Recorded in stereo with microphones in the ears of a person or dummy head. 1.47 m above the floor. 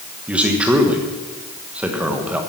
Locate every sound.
0.3 s a man speaking: 10° right (ahead or behind), 1.3 m